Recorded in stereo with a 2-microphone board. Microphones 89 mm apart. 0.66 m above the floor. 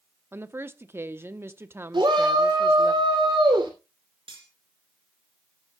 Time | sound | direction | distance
0.3 | a woman speaking | 25° right (ahead or behind) | 0.9 m
1.9 | a shout | 60° right (ahead or behind) | 2.5 m
4.3 | cutlery clinking | 80° right | 5.5 m